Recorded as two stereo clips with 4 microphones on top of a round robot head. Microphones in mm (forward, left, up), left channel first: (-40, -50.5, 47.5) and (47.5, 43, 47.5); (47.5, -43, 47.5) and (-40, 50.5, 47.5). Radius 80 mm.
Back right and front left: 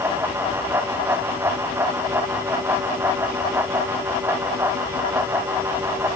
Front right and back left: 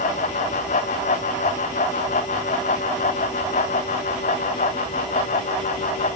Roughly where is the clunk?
I don't hear a clunk.